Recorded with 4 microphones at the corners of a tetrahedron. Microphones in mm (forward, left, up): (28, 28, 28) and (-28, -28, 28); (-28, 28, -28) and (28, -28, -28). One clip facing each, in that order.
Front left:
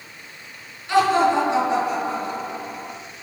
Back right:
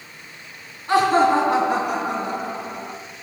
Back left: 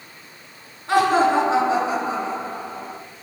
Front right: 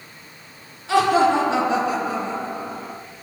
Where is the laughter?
Straight behind, 3 m; by 3.0 s 145° right, 2.5 m.